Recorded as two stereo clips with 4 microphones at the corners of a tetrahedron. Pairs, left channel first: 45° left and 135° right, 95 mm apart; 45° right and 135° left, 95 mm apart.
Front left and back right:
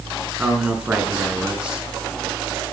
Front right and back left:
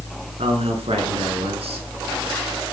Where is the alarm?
No alarm in this recording.